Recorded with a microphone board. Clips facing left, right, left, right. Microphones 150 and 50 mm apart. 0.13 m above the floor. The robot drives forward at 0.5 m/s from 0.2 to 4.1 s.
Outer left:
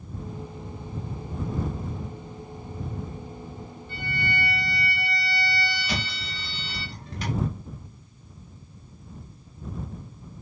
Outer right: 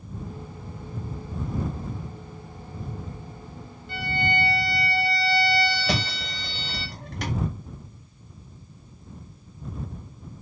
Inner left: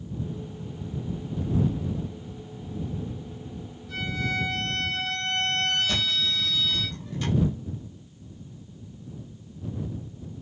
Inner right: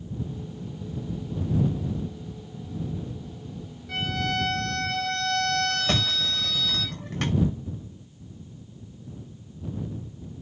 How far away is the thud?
About 5.5 m.